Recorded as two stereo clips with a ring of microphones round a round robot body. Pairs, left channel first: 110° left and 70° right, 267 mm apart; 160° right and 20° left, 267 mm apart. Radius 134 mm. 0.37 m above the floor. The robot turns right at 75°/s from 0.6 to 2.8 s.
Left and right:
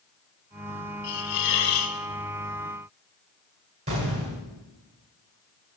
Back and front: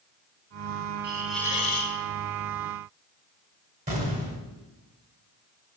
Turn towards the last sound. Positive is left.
turn(degrees=-20)